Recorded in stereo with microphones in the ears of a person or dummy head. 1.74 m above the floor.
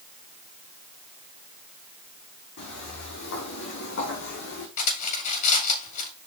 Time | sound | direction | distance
2.6 | footsteps | 65° left (ahead or behind) | 6 m
4.8 | cutlery clinking | 40° left (ahead or behind) | 5 m